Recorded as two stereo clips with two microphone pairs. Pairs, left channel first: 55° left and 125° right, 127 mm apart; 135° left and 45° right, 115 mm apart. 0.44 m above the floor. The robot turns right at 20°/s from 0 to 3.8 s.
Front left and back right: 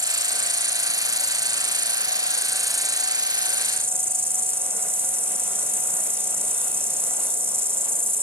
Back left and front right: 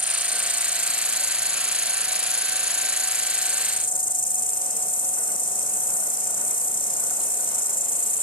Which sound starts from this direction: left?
An insect, at 0.0 s.